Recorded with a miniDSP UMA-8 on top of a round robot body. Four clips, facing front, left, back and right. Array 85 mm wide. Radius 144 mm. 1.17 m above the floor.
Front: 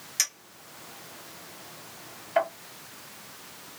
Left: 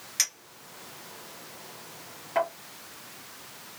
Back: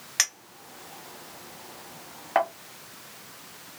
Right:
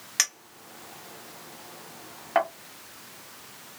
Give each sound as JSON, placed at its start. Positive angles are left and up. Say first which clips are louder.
{"t": 0.2, "sound": "a clink", "louder": "right 7 dB, back 6 dB", "azimuth_deg": -145, "distance_m": 0.9}